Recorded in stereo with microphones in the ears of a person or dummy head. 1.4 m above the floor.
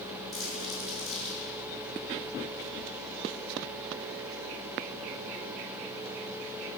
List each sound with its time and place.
0.3 s crumpling: centre (ahead or behind), 5.5 m